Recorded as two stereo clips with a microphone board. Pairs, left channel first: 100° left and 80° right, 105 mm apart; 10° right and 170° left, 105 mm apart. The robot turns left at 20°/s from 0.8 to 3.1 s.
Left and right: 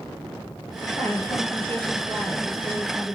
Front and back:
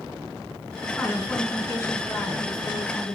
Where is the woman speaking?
55° left, 2 m; by 3.1 s 10° left, 2 m.